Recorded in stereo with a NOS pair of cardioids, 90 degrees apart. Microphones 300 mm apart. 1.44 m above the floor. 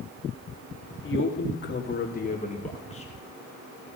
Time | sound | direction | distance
1.0 | a man speaking | 40° left | 3 m